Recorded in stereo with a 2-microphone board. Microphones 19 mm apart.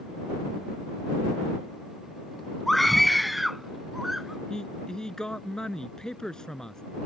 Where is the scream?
10° left (ahead or behind); by 4.4 s 15° right (ahead or behind).